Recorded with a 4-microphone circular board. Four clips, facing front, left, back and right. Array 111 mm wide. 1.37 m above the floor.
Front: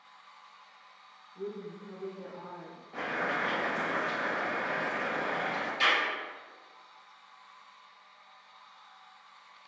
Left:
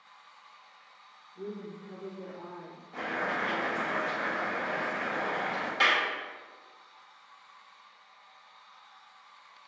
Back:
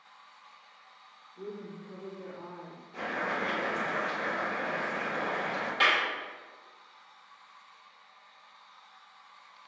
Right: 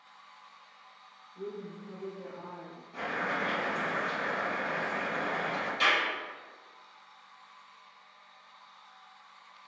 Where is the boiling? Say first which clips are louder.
Left 1 dB, even; 20° left, 1.6 m.